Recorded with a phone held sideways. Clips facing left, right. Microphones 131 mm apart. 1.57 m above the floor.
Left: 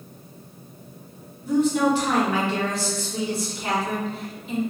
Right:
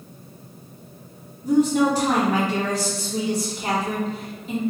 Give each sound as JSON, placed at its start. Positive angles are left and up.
{"t": 1.4, "sound": "a woman speaking", "side_deg": -40, "distance_m": 1.9}